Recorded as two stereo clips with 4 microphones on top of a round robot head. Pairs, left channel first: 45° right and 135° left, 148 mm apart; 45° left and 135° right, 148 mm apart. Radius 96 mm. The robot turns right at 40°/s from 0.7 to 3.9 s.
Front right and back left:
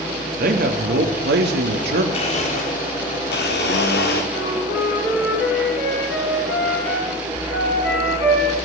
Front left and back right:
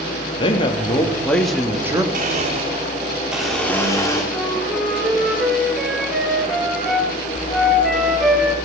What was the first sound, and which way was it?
A man speaking, 105° left.